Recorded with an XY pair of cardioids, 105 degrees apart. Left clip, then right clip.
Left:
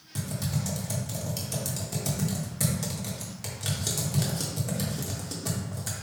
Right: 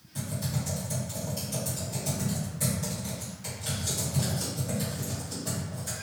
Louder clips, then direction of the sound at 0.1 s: Left 1 dB; 65° left.